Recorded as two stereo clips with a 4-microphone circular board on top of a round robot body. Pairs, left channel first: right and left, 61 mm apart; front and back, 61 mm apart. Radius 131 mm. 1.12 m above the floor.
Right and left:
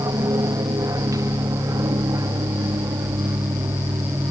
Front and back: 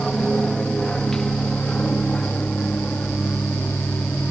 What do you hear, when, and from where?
0.0 s an aircraft: 85° left; by 4.3 s 65° left